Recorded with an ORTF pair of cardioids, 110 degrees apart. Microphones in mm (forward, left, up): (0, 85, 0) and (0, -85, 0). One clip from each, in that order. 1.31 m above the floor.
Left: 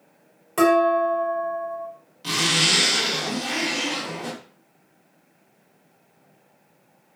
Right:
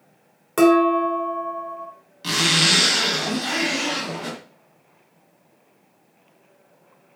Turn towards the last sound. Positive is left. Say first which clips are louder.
# right 2 dB
turn(degrees=-25)